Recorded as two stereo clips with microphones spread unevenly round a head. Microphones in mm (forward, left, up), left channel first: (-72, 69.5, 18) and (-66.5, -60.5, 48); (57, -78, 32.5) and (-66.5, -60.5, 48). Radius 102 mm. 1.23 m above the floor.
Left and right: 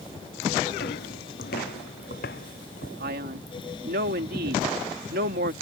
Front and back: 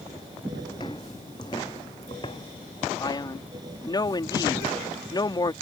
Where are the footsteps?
65° left.